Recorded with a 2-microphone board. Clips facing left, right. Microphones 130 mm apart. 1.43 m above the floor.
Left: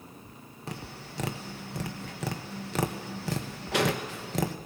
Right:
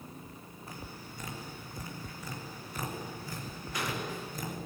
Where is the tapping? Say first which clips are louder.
Left 6 dB; 80° left, 1.2 m.